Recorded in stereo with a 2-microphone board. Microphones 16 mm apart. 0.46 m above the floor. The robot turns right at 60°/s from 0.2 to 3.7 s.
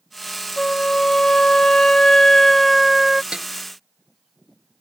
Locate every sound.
0.6 s a flute: 40° left; by 3.2 s 160° right
3.3 s a snare drum: 85° right